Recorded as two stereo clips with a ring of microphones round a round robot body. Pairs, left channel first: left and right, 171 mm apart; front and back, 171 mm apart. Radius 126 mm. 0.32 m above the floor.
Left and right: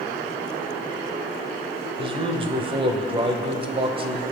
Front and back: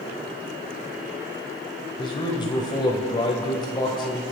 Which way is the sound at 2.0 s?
50° right.